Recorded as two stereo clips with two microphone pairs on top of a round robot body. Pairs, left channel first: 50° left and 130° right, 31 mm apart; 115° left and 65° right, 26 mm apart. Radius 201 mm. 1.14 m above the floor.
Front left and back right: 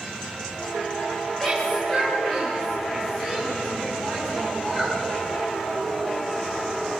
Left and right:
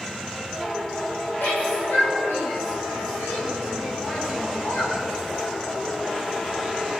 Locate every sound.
1.4 s a shout: 125° left, 6.5 m; by 5.0 s 110° left, 11.5 m